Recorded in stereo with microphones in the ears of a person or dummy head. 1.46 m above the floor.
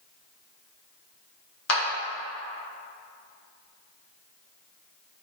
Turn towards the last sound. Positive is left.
turn(degrees=85)